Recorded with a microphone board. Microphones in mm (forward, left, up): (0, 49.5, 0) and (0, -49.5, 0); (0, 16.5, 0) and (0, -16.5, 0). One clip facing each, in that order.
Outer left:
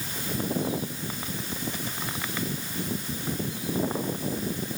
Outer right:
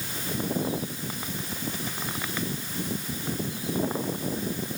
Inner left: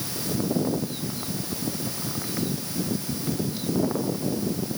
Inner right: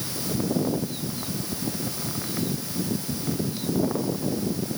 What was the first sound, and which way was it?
Only background noise.